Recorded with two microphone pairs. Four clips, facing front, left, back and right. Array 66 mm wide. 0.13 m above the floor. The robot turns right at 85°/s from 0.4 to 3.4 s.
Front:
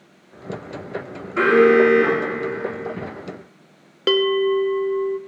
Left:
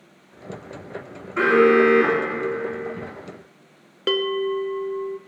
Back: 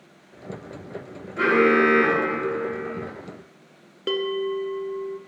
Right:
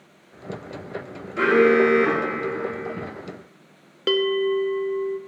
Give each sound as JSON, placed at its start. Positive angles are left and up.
{"t": 1.4, "sound": "an alarm", "azimuth_deg": 35, "distance_m": 6.5}
{"t": 4.1, "sound": "a bell", "azimuth_deg": 10, "distance_m": 0.8}